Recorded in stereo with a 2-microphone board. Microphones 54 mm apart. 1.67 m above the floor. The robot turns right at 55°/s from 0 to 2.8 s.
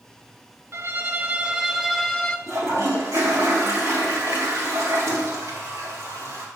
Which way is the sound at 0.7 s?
65° right.